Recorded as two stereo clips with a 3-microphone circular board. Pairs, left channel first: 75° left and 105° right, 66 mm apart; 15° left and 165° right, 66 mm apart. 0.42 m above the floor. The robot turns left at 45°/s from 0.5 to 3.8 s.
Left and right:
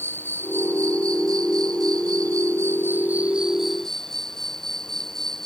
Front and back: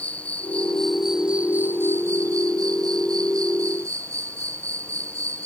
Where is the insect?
50° right; by 5.5 s 160° left.